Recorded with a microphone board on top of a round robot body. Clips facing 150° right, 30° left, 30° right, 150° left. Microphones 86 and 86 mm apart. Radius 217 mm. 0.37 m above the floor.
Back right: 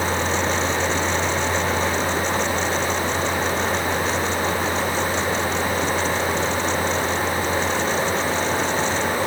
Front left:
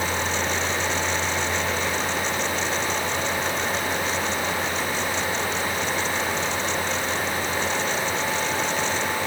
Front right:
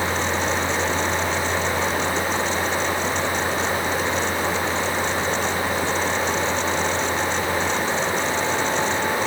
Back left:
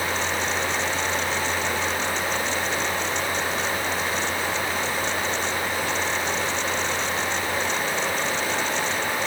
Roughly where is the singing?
No singing in this recording.